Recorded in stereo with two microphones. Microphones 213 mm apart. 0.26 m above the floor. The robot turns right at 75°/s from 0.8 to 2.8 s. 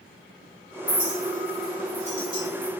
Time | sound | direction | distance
0.9 | a clink | 20° right (ahead or behind) | 1.0 m